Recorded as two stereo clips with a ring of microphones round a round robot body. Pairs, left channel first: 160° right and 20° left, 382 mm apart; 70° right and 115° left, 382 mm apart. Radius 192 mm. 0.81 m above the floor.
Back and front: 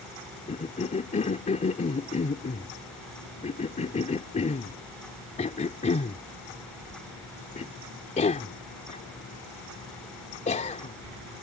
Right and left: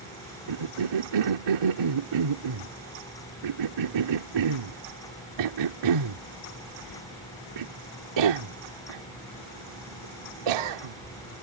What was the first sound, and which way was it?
A cough, 130° left.